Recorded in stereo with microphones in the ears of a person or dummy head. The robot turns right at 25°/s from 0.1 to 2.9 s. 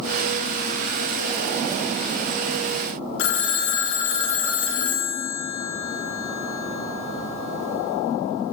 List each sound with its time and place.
3.2 s a phone ringing: 70° left (ahead or behind), 1.2 m